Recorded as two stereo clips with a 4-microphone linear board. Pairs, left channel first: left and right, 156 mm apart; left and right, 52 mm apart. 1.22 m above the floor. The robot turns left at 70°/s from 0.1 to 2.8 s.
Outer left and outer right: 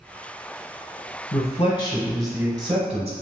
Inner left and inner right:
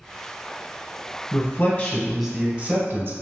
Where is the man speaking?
65° left, 0.7 m; by 3.1 s 40° right, 0.7 m.